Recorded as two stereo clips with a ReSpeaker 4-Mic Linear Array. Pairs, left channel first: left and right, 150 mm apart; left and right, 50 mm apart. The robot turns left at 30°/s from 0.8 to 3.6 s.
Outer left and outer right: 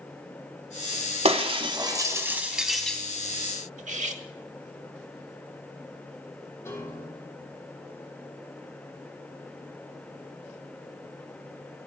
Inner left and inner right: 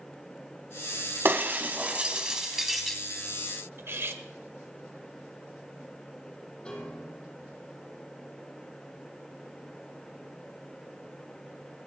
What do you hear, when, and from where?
1.2 s breaking glass: 45° right (ahead or behind), 1.4 m; by 3.0 s 5° left (ahead or behind), 1.4 m
3.8 s cutlery clinking: 50° right (ahead or behind), 1.1 m
6.7 s a piano: 20° left (ahead or behind), 5 m